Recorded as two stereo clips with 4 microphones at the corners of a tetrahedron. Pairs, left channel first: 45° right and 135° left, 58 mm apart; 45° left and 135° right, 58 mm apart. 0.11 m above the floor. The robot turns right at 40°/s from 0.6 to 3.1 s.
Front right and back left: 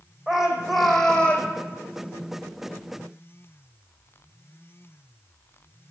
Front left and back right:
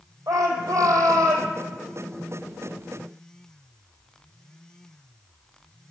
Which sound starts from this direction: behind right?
A shout, at 0.3 s.